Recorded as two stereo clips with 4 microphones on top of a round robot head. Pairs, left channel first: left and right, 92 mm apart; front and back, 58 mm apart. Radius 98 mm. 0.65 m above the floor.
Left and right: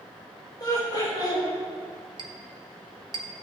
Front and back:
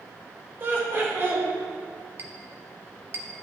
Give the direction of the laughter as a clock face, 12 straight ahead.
7 o'clock.